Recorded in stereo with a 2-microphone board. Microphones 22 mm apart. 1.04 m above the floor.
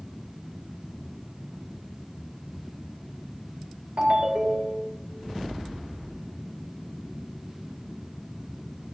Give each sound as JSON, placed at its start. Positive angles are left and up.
{"t": 4.0, "sound": "a ringtone", "side_deg": -55, "distance_m": 1.8}